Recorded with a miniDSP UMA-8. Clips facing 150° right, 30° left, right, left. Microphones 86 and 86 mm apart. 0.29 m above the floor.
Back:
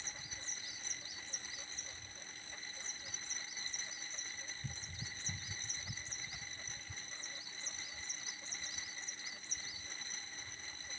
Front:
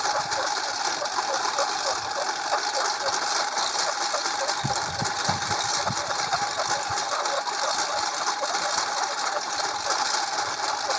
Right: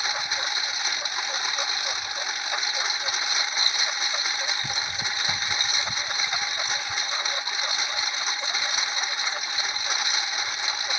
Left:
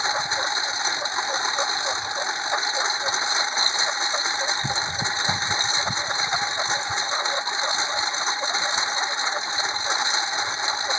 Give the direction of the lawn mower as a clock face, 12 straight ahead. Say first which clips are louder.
Front 28 dB, left 5 dB; 11 o'clock.